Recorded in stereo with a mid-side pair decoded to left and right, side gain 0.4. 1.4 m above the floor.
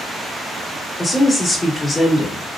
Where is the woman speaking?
20° left, 1.8 m.